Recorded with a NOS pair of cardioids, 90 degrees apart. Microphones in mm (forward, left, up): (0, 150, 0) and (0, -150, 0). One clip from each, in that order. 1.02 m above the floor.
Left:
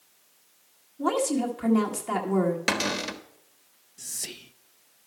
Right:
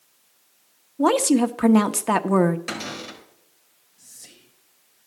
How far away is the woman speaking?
About 0.9 m.